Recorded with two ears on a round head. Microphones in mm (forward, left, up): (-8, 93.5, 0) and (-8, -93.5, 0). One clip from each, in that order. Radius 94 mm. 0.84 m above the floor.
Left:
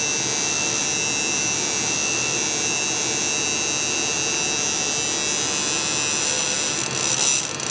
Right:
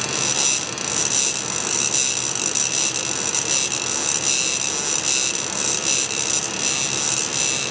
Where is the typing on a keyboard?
No typing on a keyboard in this recording.